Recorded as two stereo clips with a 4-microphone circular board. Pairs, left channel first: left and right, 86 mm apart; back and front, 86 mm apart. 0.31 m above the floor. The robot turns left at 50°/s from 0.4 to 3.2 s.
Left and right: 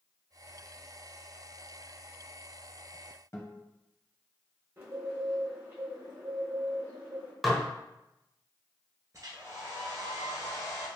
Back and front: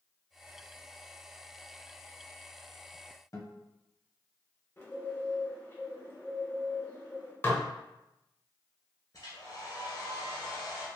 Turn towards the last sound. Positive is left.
turn(degrees=-135)